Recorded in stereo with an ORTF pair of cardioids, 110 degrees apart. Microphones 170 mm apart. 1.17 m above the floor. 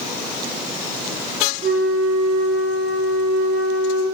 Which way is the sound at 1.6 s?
65° right.